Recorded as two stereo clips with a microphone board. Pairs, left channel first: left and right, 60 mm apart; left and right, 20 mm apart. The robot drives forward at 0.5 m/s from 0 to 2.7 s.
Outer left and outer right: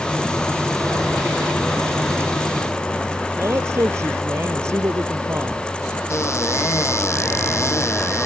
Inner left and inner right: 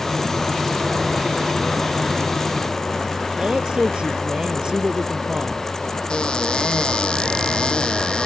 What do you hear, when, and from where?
3.4 s a man speaking: 50° right (ahead or behind)
6.1 s a cupboard door: 50° left (ahead or behind)